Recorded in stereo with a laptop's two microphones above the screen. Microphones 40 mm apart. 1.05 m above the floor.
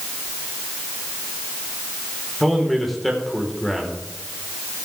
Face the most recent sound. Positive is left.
turn(degrees=0)  # may be behind; listen again after turning